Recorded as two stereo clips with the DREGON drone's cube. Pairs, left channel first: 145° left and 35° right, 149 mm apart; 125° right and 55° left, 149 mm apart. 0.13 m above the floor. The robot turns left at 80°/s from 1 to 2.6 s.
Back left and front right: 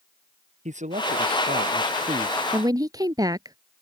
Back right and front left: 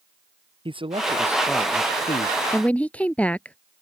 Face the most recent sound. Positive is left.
turn(degrees=-55)